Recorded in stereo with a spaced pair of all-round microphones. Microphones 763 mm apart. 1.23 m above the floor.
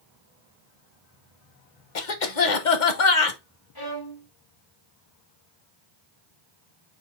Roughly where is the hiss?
I don't hear a hiss.